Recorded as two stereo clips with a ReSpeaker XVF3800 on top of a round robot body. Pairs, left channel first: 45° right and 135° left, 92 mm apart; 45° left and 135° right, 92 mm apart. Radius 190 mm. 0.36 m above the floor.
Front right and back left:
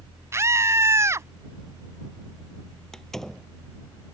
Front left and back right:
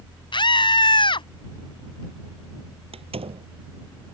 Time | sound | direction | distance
0.3 | a scream | 75° left | ?
2.9 | a door slam | 130° right | ?